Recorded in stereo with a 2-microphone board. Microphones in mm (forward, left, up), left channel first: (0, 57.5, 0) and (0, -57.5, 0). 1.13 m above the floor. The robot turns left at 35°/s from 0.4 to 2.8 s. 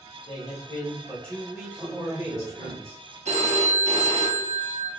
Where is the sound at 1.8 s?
25° right, 2.0 m; by 3.1 s 60° right, 2.0 m.